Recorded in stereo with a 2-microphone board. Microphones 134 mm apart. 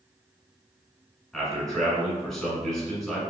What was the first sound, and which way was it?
A man speaking, 5° left (ahead or behind).